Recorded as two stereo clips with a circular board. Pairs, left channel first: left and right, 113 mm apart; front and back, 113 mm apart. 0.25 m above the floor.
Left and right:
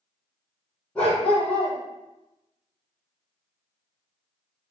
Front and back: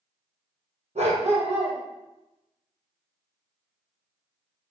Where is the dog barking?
170° left, 3 m.